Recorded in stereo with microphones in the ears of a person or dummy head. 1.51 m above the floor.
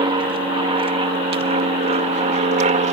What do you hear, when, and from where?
0.0 s an aircraft: 30° right (ahead or behind); by 2.9 s 40° right (ahead or behind)